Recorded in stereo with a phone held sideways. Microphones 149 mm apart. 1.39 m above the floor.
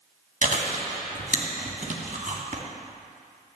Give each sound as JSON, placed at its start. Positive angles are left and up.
{"t": 0.4, "sound": "chewing", "side_deg": -60, "distance_m": 2.5}